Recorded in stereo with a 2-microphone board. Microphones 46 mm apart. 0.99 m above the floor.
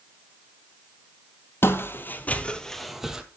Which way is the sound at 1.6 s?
55° left (ahead or behind).